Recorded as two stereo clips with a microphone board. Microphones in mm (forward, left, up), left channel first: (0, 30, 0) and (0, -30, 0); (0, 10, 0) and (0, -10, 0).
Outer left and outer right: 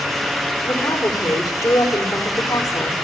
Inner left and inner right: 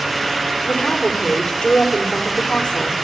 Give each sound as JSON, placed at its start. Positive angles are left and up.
{"t": 0.6, "sound": "a woman speaking", "side_deg": 65, "distance_m": 3.5}